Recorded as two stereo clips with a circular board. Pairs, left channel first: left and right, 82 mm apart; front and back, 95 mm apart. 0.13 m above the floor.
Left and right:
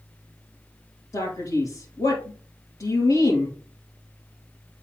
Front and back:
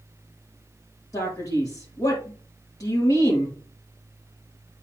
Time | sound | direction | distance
1.1 | a man speaking | 45° left | 3.5 m